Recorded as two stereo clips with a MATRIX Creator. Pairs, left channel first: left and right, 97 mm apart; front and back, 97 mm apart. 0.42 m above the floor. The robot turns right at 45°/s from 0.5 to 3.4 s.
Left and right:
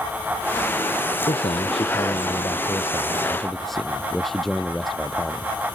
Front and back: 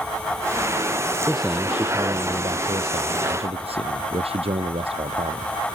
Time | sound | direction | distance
1.2 | a man speaking | 80° left | ?